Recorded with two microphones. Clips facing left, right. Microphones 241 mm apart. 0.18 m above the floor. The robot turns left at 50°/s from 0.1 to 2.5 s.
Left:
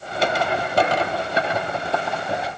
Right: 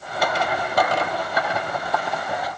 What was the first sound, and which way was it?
Only background noise.